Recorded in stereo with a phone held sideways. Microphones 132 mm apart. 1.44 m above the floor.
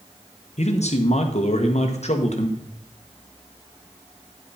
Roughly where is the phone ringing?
No phone ringing in this recording.